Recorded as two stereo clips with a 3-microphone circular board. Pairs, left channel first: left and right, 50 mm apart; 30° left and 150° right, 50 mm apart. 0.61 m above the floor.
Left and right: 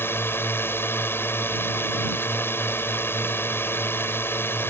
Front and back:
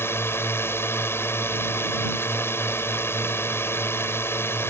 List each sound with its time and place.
0.0 s a drone: 55° left